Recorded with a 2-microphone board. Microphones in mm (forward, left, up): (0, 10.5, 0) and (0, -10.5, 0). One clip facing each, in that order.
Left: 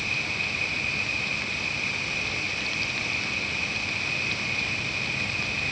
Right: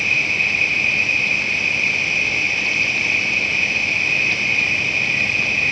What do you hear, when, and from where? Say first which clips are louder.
0.0 s an insect: right 10 dB; 45° right (ahead or behind)